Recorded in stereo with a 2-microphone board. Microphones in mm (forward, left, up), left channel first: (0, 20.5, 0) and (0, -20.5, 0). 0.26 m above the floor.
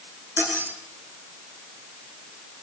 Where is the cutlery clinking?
65° right (ahead or behind), 6.5 m.